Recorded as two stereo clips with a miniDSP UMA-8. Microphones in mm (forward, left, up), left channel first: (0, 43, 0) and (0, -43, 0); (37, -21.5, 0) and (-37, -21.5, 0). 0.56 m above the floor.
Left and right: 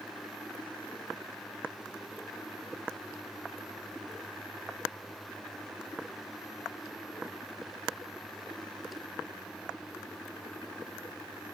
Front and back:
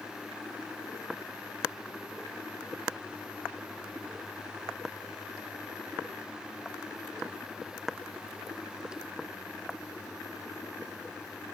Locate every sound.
Only background noise.